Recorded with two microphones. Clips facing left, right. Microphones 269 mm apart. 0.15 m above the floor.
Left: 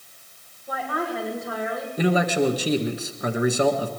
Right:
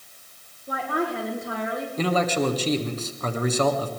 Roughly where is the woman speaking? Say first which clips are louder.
Right 2 dB; right.